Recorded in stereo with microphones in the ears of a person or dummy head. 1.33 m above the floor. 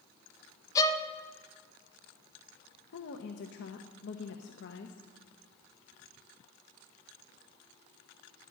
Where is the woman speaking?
65° left (ahead or behind), 1.1 m.